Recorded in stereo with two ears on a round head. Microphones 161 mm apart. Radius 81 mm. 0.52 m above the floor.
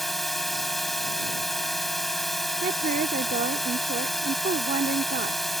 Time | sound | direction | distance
0.0 | a drone | centre (ahead or behind) | ?
2.6 | a woman speaking | 45° right (ahead or behind) | ?